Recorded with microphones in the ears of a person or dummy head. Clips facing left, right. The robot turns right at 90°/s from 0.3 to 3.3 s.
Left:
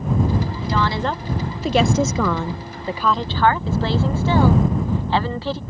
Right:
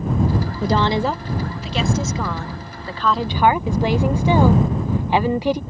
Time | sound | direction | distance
0.6 | a woman speaking | 45° right | ?